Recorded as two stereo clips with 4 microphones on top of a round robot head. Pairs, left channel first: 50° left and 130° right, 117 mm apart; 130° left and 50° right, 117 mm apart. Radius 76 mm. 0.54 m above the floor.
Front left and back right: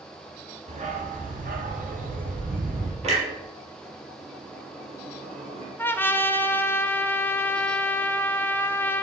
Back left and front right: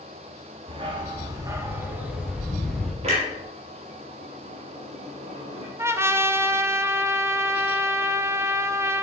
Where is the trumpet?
5° right, 1.0 m.